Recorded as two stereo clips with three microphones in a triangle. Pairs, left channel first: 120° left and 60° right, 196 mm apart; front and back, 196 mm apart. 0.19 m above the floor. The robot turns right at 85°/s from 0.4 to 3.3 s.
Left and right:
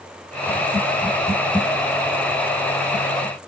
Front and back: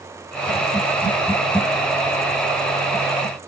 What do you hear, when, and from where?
Only background noise.